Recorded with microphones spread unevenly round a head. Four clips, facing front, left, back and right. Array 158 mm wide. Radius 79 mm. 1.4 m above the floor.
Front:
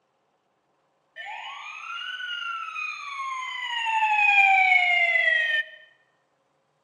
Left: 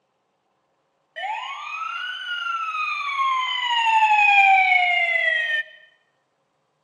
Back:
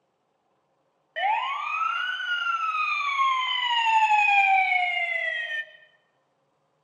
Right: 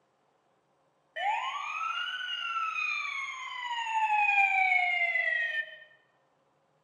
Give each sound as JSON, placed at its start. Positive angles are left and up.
{"t": 1.2, "sound": "a siren", "azimuth_deg": 180, "distance_m": 2.5}